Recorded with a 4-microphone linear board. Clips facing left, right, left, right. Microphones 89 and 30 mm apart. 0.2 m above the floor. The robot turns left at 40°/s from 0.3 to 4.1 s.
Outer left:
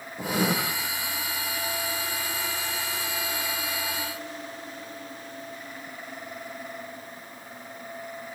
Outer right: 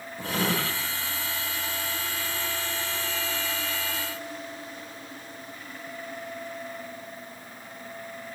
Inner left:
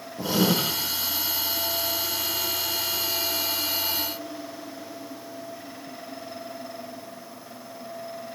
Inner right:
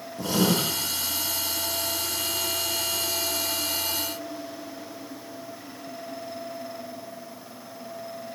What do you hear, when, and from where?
0.2 s writing: 20° left (ahead or behind), 3.5 m; by 0.5 s 10° left (ahead or behind), 3.5 m